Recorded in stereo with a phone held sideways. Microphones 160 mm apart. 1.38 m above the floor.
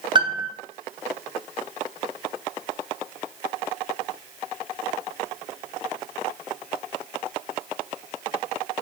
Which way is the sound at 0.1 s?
30° right (ahead or behind).